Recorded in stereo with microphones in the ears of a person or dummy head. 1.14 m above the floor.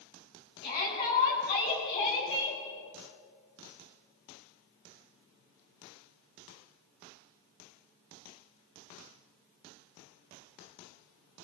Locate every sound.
0.6 s a shout: 25° left (ahead or behind), 10 m